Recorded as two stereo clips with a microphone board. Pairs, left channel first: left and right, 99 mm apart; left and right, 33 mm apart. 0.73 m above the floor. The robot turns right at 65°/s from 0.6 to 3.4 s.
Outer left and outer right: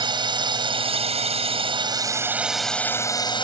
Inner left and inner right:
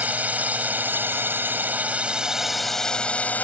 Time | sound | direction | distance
0.0 | a drone | 130° right | ?